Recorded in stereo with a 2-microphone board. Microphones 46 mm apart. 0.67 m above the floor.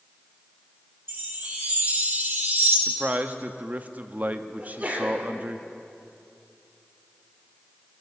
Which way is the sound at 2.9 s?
35° right (ahead or behind).